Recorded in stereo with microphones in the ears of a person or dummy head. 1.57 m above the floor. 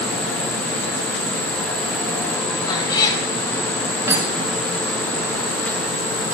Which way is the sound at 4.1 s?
15° right (ahead or behind).